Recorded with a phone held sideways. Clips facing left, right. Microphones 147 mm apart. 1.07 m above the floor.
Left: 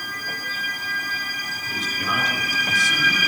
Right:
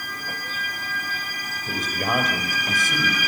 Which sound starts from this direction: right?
A man speaking, at 1.7 s.